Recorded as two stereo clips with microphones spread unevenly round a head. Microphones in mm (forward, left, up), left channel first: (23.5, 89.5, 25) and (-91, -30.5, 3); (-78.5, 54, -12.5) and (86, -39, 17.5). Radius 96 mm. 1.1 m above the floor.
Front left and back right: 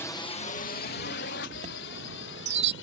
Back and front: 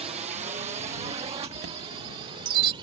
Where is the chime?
80° right.